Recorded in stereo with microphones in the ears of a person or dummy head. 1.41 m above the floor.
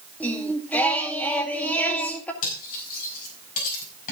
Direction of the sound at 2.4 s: 50° left (ahead or behind).